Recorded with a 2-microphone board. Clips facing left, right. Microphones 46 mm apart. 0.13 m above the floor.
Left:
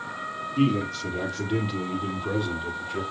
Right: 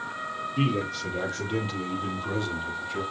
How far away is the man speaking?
About 3.5 m.